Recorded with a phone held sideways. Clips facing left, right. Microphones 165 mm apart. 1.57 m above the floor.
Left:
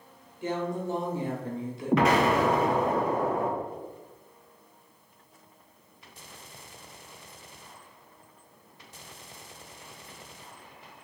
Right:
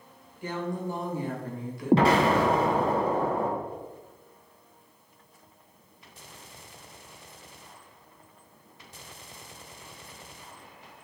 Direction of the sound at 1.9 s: 30° right (ahead or behind).